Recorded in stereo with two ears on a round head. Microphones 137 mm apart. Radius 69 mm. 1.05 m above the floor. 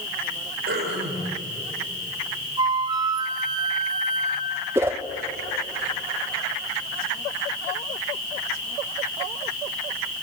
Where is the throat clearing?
85° right, 7.5 m.